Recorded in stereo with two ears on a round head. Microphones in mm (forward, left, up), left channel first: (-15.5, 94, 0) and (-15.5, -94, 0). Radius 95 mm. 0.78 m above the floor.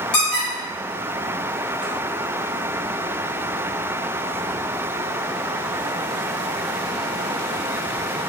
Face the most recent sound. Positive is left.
turn(degrees=55)  # may be behind; listen again after turning